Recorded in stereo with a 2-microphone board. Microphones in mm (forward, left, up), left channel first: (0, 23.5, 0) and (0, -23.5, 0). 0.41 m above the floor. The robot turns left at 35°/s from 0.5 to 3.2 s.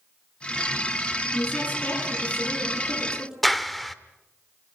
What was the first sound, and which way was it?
A woman speaking, 55° left.